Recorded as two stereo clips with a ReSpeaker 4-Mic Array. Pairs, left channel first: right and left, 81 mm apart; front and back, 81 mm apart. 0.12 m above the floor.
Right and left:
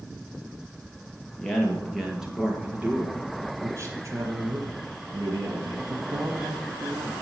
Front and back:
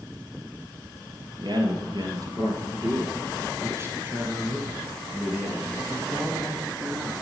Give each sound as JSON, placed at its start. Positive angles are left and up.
{"t": 1.4, "sound": "a man speaking", "azimuth_deg": -175, "distance_m": 3.5}